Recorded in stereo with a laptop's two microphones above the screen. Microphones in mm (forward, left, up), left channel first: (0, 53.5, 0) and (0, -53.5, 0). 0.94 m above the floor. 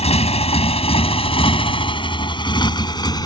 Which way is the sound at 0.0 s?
80° left.